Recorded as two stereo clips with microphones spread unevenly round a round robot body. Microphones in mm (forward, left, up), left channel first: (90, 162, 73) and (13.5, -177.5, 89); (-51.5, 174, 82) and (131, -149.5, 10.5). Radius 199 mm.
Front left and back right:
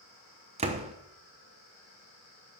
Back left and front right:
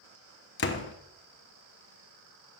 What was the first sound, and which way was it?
A door slam, 175° right.